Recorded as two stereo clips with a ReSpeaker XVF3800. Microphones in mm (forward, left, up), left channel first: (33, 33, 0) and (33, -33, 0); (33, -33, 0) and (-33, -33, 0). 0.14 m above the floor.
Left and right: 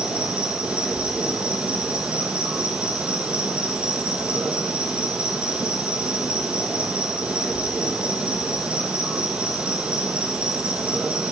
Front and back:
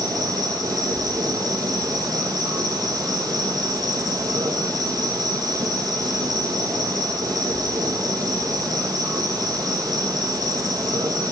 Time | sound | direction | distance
0.0 | an insect | 165° right | 1.4 m